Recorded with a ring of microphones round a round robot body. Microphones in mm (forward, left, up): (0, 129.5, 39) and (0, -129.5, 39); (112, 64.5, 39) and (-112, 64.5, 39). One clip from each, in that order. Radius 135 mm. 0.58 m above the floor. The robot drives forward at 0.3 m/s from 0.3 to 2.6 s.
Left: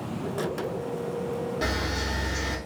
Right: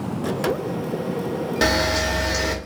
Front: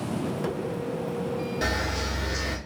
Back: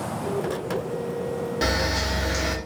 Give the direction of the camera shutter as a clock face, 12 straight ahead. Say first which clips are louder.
Right 12 dB, back 5 dB; 3 o'clock.